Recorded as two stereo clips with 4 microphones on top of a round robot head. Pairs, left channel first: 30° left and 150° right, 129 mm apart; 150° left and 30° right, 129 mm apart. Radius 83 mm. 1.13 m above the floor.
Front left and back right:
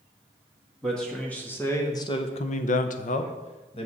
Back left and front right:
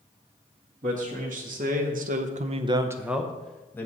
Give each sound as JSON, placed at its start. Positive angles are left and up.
{"t": 0.8, "sound": "a man speaking", "azimuth_deg": -55, "distance_m": 1.8}